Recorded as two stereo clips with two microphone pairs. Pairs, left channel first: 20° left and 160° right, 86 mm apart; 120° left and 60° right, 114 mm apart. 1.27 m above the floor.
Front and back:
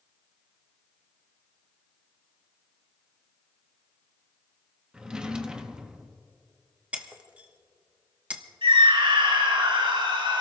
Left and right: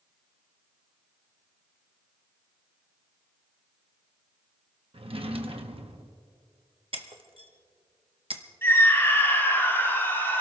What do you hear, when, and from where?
4.9 s a drawer: 80° right, 0.9 m
6.9 s breaking glass: 90° right, 1.1 m
8.6 s a scream: 170° right, 4 m